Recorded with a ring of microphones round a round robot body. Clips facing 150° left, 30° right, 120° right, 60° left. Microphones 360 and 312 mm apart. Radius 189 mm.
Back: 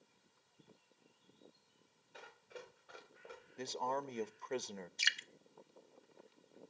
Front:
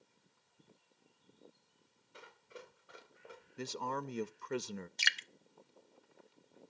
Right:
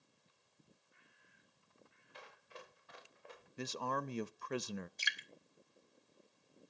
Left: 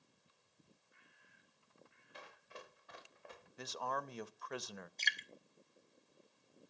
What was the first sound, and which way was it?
Running footsteps, 55° left.